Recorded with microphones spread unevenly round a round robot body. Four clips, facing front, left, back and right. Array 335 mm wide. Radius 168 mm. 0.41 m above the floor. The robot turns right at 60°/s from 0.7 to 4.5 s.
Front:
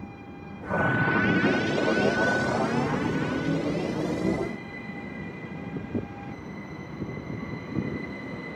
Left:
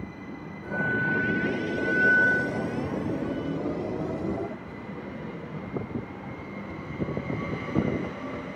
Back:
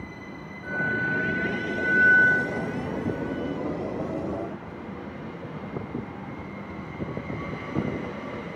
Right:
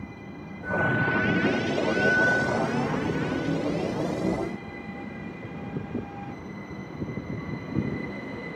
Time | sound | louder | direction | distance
0.6 | a flute | right 2 dB, front 3 dB | 165° right | 2 m